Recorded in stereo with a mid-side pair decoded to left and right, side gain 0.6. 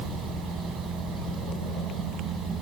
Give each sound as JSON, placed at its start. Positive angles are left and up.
{"t": 0.0, "sound": "a fan", "azimuth_deg": -55}